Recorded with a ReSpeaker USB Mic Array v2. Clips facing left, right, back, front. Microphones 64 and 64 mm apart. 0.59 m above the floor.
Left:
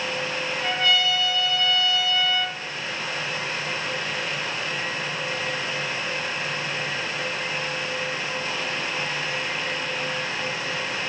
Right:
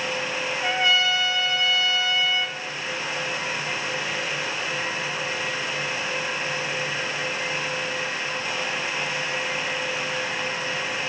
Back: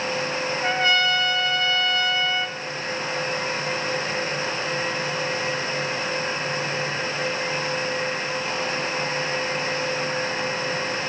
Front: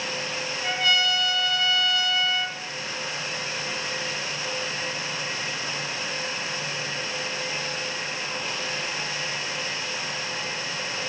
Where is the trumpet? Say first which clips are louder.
Right 1 dB, back 3 dB; 155° right, 1.2 m.